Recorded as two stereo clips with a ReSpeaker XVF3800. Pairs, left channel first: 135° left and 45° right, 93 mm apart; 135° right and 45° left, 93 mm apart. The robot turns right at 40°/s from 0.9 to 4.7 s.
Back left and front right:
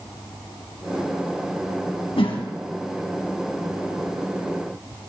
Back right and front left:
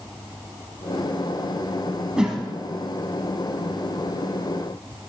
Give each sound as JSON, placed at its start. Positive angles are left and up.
{"t": 2.2, "sound": "a whoosh", "azimuth_deg": 125, "distance_m": 3.0}